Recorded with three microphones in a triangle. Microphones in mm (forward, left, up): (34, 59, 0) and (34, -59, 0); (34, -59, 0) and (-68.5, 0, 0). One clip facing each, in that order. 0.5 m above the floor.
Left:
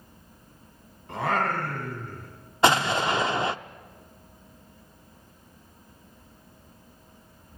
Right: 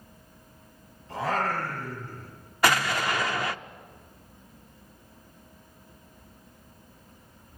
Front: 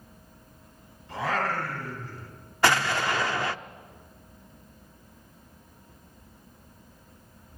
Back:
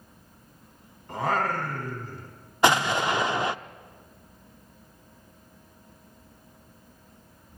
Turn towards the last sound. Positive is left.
turn(degrees=110)